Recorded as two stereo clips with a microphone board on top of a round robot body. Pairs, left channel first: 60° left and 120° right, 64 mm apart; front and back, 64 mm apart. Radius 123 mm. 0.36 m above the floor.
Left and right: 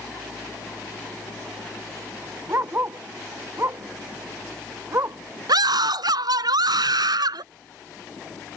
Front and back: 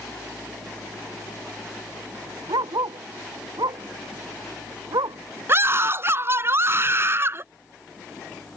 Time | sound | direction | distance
2.5 | a dog barking | 175° right | ?
5.5 | a scream | 130° right | ?